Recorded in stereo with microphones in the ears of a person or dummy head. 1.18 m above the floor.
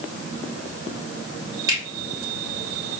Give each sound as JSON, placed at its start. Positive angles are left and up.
{"t": 1.7, "sound": "a finger snap", "side_deg": -25, "distance_m": 2.0}